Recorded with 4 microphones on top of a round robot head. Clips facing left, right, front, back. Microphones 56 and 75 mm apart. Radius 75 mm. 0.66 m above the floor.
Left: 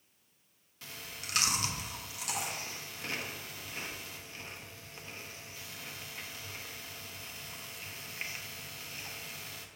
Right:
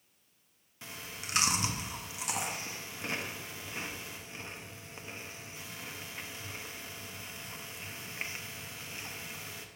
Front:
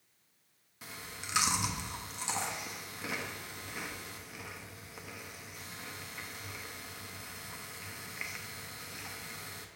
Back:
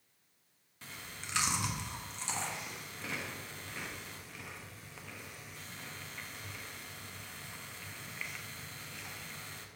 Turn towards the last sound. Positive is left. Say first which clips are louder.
# right 2 dB, front 2 dB
turn(degrees=-55)